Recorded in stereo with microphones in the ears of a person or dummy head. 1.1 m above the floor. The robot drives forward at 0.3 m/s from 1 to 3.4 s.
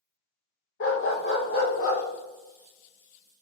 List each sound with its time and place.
0.8 s a dog barking: 45° left (ahead or behind), 0.6 m; by 2.0 s 35° left (ahead or behind), 0.7 m